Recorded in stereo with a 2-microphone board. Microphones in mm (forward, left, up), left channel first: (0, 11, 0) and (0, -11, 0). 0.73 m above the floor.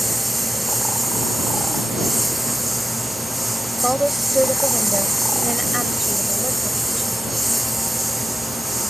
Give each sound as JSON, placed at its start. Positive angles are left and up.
{"t": 0.0, "sound": "a lawn mower", "side_deg": -5}
{"t": 3.8, "sound": "a woman speaking", "side_deg": -15}